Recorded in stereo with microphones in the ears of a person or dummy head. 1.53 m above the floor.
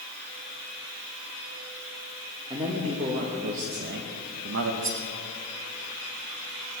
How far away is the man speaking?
About 1.9 m.